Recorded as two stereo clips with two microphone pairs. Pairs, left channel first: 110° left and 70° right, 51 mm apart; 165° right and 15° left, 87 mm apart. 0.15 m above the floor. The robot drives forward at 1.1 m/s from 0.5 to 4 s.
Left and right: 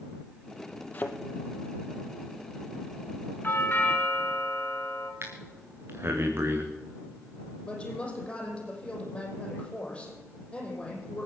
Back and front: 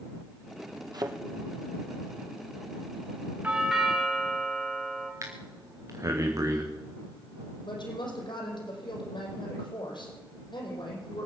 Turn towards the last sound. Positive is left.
turn(degrees=175)